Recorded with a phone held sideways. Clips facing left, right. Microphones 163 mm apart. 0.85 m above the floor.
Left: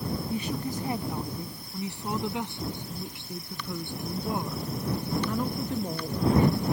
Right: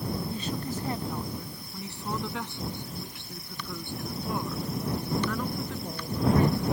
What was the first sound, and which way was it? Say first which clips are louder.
A woman speaking: left 2 dB; 15° left (ahead or behind).